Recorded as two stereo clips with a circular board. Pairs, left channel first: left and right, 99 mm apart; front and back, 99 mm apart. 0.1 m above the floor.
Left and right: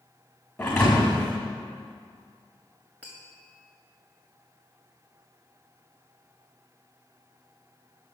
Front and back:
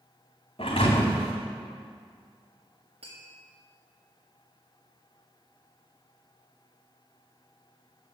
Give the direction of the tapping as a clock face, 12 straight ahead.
6 o'clock.